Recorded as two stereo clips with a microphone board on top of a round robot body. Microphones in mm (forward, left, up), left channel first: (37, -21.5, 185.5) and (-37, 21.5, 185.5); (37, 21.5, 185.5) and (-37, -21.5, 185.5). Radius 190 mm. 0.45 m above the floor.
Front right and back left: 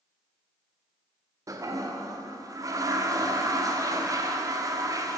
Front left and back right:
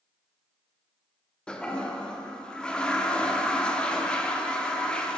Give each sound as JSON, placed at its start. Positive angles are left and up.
{"t": 1.5, "sound": "a toilet flushing", "azimuth_deg": 110, "distance_m": 1.0}